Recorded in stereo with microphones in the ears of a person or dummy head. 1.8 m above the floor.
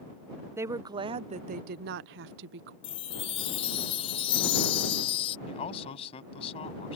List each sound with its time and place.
0.6 s a woman speaking: 20° right (ahead or behind); by 2.7 s 60° right (ahead or behind)
2.8 s a chime: 35° left (ahead or behind)
5.5 s a man speaking: 40° left (ahead or behind)